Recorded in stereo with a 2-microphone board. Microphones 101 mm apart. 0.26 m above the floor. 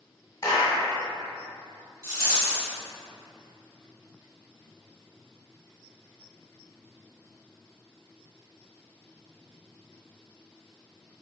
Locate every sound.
0.4 s a clap: 25° left (ahead or behind), 1.1 m
2.0 s a rattle: 35° right (ahead or behind), 2.0 m